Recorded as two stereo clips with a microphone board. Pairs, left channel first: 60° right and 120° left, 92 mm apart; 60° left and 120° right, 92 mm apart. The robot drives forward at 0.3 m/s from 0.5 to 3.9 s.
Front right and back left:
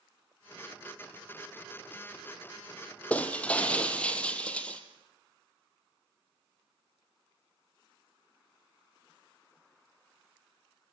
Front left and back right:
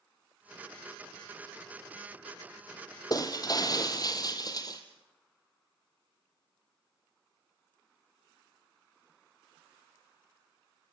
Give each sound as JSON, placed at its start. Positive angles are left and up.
{"t": 3.1, "sound": "breaking glass", "azimuth_deg": 15, "distance_m": 3.0}